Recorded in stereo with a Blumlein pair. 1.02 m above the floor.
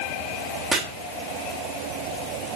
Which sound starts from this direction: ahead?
Chopping, at 0.7 s.